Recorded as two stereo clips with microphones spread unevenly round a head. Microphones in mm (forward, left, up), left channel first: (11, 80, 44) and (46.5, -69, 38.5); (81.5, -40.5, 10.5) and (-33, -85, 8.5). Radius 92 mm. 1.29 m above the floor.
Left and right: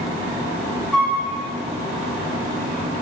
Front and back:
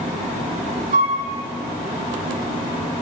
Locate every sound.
0.9 s a flute: 165° right, 1.4 m